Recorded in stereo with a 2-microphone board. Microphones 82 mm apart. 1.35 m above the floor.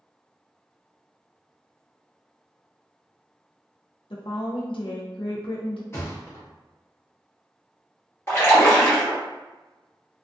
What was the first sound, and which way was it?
A woman speaking, 80° left.